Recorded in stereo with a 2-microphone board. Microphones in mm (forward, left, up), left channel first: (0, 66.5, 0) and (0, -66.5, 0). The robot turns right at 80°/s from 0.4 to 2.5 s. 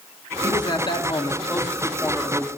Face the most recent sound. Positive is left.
turn(degrees=-145)